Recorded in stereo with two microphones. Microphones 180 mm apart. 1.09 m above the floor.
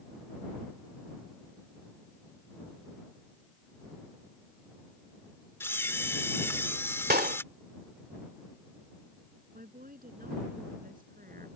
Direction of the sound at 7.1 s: 60° right (ahead or behind).